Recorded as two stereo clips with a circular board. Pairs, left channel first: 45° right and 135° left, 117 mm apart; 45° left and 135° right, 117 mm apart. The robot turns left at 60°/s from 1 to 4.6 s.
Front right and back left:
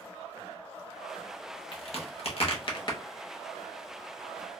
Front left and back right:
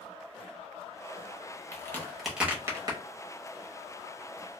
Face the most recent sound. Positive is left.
turn(degrees=175)